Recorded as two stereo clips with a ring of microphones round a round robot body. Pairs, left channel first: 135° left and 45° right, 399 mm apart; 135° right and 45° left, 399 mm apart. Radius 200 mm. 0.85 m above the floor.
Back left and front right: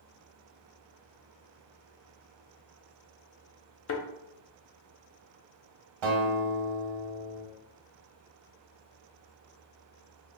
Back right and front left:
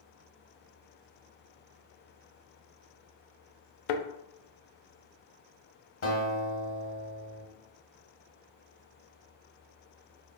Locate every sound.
3.9 s a thud: 165° right, 0.5 m
6.0 s a guitar: 75° right, 1.4 m